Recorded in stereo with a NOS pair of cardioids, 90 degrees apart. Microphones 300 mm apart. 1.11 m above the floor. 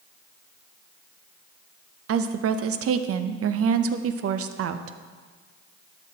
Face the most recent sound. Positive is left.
turn(degrees=-55)